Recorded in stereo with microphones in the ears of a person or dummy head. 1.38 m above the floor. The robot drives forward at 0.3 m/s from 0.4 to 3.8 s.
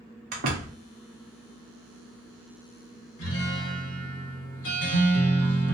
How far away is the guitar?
About 0.9 m.